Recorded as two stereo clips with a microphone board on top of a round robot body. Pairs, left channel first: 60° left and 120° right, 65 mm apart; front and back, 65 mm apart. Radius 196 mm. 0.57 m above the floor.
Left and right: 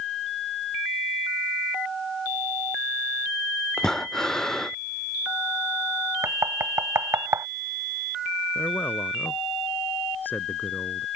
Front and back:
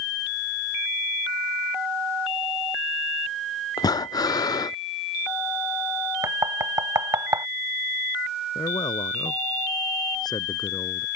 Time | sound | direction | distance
3.8 | breathing | 20° right | ?
6.2 | knocking | 155° right | ?
8.6 | a man speaking | straight ahead | ?